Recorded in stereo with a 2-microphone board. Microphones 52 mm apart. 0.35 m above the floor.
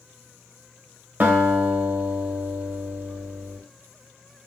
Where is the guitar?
35° right (ahead or behind), 0.7 m.